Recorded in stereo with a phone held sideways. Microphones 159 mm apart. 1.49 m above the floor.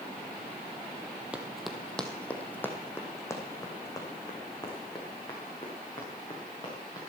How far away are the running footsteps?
About 1.7 m.